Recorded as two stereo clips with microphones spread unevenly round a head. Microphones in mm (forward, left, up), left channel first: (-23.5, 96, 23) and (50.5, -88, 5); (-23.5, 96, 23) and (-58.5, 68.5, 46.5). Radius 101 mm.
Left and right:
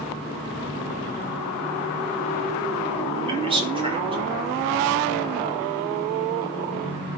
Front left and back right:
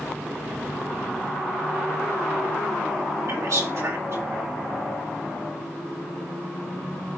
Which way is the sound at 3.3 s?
135° right.